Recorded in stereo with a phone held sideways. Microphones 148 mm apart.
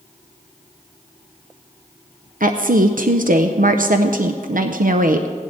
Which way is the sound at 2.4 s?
65° right (ahead or behind).